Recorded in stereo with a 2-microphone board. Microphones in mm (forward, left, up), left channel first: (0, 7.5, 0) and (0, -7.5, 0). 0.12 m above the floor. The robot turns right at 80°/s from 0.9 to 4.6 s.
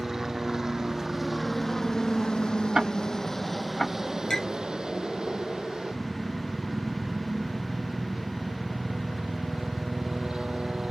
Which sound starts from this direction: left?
A clink, at 4.3 s.